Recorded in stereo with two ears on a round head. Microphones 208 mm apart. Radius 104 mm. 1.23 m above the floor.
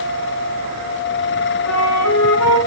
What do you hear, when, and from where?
1.7 s a flute: 70° left (ahead or behind), 3.5 m